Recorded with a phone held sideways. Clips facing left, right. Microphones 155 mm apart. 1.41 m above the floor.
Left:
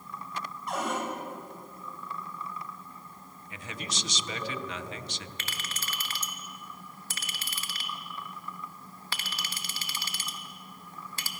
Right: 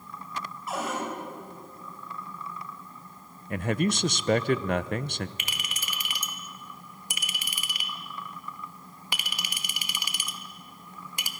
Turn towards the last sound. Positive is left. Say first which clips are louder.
# even
turn(degrees=-15)  # may be behind; listen again after turning